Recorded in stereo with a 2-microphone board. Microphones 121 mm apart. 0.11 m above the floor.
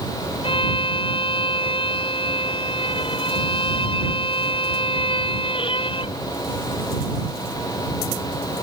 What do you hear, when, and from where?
0.4 s a violin: 50° left (ahead or behind)